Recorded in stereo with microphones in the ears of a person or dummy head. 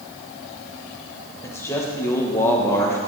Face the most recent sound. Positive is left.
turn(degrees=10)  # may be behind; listen again after turning